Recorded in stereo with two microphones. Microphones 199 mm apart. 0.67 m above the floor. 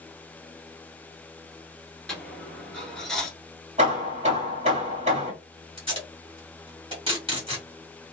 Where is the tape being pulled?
25° right (ahead or behind), 1.8 m.